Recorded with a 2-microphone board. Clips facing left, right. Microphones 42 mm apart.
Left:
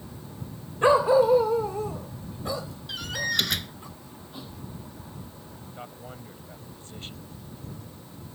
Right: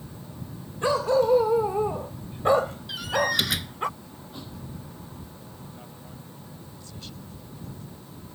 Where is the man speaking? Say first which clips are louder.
Left 3 dB; 35° left (ahead or behind).